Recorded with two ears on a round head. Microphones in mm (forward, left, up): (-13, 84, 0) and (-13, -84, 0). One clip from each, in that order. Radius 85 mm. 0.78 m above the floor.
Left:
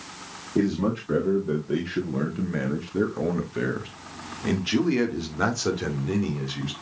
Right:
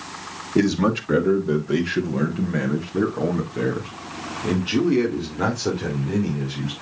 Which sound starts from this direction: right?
A man speaking, at 0.6 s.